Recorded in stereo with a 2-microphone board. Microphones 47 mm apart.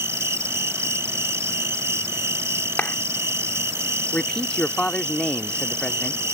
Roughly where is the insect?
Right.